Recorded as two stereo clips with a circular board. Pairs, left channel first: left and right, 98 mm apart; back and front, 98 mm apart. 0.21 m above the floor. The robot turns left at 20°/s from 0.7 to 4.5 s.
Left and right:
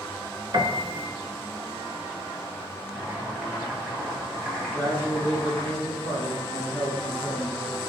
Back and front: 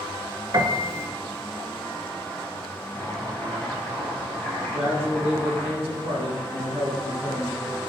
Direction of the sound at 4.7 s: 160° right.